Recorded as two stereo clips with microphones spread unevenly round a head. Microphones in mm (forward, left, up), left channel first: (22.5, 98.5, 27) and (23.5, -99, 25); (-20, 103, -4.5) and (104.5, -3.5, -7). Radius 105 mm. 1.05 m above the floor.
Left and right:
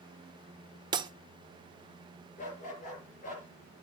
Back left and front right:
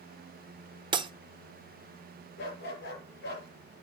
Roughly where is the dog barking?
Behind left.